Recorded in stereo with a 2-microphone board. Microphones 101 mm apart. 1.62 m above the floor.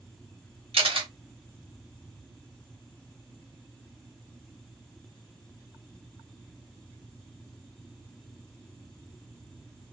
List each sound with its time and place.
0.7 s a camera shutter: 75° right (ahead or behind), 1.1 m